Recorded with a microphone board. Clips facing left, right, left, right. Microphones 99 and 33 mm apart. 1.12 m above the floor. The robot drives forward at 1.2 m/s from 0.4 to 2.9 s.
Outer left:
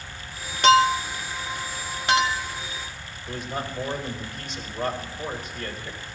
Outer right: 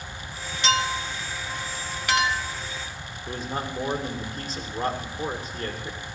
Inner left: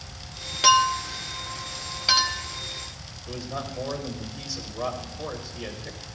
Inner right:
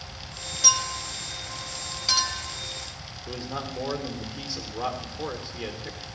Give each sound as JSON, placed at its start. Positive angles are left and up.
{"t": 0.6, "sound": "a clink", "side_deg": 50, "distance_m": 0.9}
{"t": 3.3, "sound": "a man speaking", "side_deg": -40, "distance_m": 2.5}